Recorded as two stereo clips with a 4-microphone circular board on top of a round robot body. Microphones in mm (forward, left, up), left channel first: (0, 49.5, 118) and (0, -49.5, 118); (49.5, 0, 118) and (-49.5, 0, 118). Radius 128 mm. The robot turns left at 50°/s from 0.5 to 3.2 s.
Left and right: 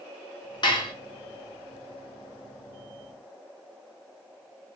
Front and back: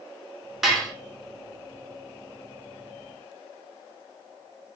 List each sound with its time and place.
0.6 s dishes clattering: 95° left, 0.9 m; by 0.9 s 80° left, 0.9 m